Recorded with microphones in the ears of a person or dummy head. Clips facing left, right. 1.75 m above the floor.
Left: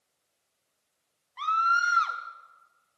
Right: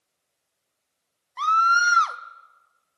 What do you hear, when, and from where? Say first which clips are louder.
1.4 s a scream: right 6 dB; 60° right (ahead or behind), 0.6 m